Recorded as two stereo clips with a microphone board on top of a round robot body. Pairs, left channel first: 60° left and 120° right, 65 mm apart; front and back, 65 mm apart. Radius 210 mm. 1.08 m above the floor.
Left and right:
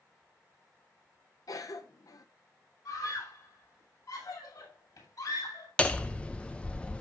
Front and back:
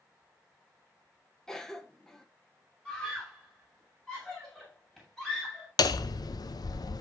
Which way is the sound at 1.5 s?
85° left.